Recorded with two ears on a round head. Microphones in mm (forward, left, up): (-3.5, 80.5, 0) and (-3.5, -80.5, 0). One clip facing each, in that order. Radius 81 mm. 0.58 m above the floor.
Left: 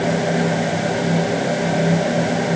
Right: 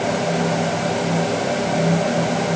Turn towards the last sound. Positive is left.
No sound to turn to.